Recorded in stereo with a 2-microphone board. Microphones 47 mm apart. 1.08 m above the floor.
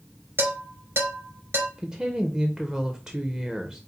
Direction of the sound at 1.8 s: 20° right (ahead or behind).